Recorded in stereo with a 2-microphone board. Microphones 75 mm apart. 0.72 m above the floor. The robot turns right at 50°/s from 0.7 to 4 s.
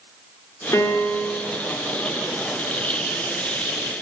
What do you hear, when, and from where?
0.7 s a piano: 120° left, 1.3 m; by 1.4 s 155° left, 1.3 m